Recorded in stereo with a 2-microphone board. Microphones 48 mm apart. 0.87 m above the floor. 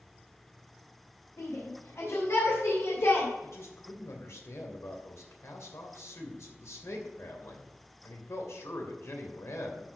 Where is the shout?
80° left, 4.5 m; by 3.3 s 70° left (ahead or behind), 2.5 m.